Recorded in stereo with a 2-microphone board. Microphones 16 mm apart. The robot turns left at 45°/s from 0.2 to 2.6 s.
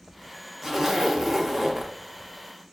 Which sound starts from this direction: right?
A zipper, at 0.6 s.